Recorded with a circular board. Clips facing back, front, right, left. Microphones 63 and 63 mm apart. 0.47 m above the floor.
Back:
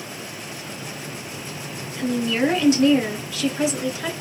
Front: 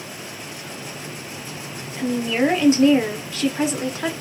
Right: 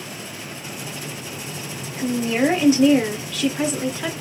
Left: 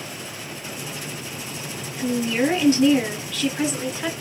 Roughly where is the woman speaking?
Ahead right.